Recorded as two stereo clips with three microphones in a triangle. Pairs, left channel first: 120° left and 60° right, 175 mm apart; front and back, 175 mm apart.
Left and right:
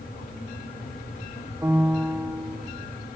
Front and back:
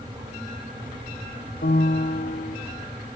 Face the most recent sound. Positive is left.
turn(degrees=15)